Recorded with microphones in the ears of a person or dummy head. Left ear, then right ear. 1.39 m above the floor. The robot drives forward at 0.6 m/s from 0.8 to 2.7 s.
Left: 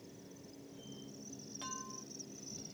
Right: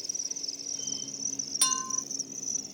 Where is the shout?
I don't hear a shout.